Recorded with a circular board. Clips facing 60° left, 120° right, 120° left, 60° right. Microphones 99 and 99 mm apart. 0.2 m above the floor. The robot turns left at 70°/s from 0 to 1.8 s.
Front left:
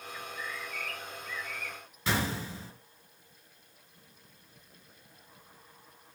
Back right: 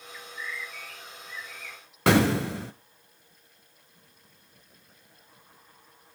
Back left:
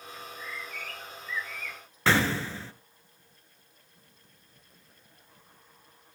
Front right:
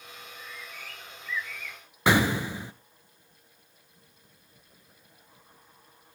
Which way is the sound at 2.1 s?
135° right.